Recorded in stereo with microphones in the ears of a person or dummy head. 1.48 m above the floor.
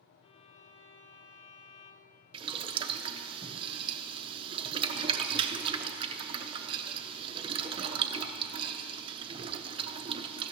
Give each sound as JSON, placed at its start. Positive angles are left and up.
{"t": 0.2, "sound": "a violin", "side_deg": 30, "distance_m": 0.6}
{"t": 2.3, "sound": "boiling", "side_deg": -25, "distance_m": 0.6}